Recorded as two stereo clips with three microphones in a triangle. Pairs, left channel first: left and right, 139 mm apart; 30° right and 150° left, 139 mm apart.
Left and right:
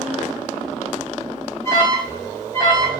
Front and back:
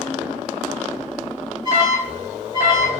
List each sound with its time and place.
1.6 s an alarm: 145° left, 1.8 m